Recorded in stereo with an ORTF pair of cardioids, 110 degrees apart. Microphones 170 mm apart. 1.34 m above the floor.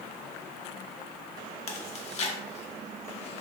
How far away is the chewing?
About 0.7 m.